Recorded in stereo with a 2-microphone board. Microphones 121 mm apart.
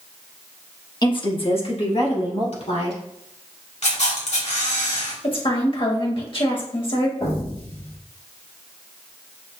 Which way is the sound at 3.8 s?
70° left (ahead or behind).